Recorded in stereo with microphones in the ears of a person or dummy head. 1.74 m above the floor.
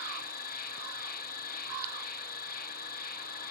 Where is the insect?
55° left (ahead or behind), 1.4 m.